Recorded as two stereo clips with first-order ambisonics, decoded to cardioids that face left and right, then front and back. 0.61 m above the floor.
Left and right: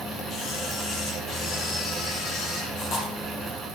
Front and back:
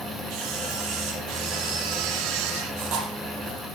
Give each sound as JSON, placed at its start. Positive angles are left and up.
{"t": 0.3, "sound": "a camera shutter", "azimuth_deg": 150, "distance_m": 4.5}